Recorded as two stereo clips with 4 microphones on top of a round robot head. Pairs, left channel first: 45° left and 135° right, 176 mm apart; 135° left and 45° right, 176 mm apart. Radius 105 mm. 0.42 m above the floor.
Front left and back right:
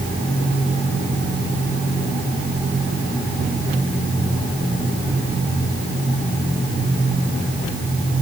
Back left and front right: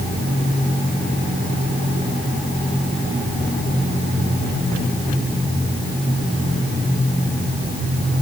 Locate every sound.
Only background noise.